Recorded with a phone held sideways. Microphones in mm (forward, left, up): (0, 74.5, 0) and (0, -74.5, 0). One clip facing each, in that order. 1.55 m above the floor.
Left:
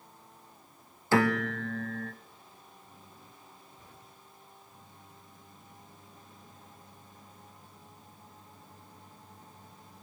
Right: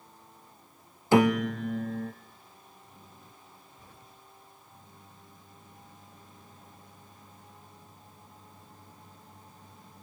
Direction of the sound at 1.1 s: 20° right (ahead or behind).